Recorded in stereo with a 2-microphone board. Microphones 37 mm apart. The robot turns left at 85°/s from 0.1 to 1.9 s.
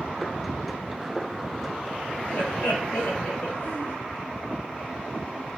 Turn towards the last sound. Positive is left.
turn(degrees=55)  # may be behind; listen again after turning